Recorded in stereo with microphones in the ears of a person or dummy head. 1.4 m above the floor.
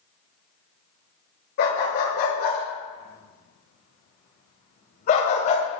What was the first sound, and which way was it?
A dog barking, 60° left (ahead or behind).